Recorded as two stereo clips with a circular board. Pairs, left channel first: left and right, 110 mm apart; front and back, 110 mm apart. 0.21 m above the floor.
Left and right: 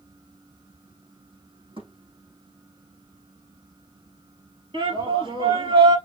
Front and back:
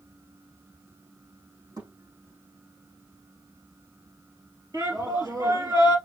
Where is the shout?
125° right, 3.5 m.